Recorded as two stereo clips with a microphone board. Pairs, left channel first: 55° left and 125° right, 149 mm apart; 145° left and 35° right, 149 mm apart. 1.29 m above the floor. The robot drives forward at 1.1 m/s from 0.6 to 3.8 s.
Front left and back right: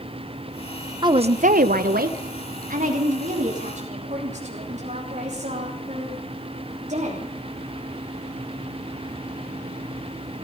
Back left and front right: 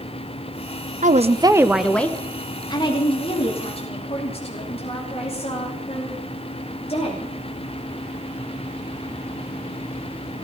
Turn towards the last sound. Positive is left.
turn(degrees=-165)